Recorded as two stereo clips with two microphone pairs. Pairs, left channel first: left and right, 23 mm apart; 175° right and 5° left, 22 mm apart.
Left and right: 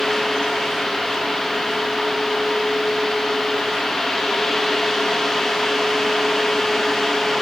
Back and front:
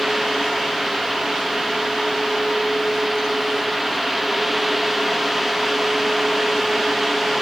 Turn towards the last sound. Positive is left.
No sound to turn to.